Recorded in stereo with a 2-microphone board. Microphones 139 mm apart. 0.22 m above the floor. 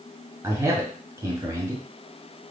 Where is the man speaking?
20° right (ahead or behind), 1.6 m.